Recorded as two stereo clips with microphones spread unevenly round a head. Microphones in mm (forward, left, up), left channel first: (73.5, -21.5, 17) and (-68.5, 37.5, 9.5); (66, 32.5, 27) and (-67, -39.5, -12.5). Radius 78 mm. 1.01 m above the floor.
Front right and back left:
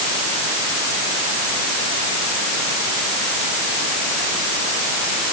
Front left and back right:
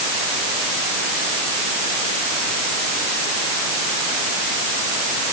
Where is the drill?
No drill in this recording.